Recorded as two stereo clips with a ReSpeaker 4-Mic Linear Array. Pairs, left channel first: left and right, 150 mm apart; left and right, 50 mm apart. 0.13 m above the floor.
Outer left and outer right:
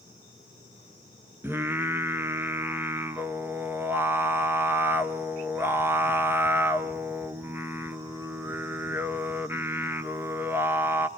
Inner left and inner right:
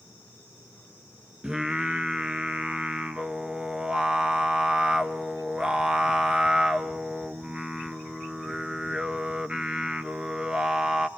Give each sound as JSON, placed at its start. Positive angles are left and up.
{"t": 1.4, "sound": "singing", "side_deg": -15, "distance_m": 1.0}